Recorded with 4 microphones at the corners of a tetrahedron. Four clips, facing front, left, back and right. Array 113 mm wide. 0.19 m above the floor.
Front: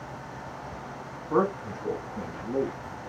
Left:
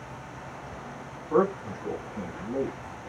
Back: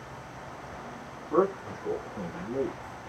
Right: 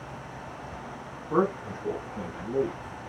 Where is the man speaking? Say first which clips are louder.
Left 1 dB, even; 10° left, 1.4 m; by 2.8 s 5° right, 2.5 m.